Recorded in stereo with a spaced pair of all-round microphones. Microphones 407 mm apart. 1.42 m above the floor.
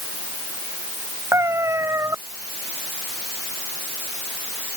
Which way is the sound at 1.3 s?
5° right (ahead or behind).